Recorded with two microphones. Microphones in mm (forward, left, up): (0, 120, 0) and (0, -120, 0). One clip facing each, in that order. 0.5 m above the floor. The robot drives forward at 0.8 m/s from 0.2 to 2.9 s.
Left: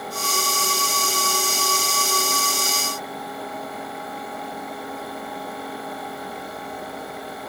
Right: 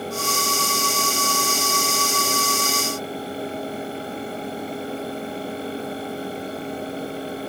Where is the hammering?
I don't hear hammering.